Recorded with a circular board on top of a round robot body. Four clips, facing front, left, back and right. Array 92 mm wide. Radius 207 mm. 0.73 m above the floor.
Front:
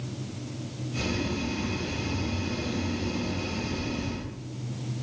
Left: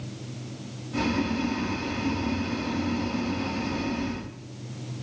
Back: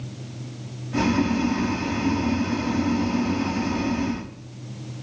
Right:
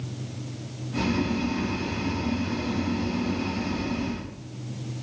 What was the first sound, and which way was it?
Boiling, 175° right.